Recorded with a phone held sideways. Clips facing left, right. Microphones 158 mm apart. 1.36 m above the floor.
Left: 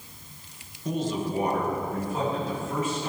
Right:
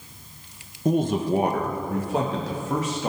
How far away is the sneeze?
No sneeze in this recording.